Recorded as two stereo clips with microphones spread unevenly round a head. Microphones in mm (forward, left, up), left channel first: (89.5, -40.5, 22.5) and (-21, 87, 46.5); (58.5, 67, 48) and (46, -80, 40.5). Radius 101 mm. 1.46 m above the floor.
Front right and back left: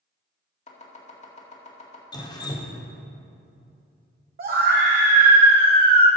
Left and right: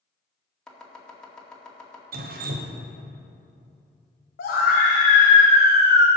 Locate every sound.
0.7 s chopping: straight ahead, 2 m
2.1 s dripping: 115° right, 1.0 m
4.4 s a scream: 100° left, 1.3 m